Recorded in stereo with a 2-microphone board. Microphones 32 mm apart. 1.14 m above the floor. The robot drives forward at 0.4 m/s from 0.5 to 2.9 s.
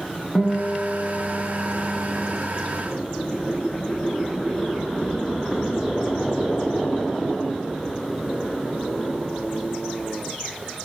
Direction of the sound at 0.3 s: 5° left (ahead or behind).